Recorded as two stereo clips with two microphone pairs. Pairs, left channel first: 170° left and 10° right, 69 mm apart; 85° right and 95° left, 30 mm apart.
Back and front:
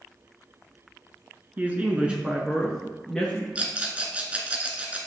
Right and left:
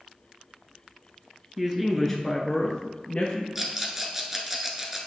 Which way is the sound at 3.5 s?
30° left.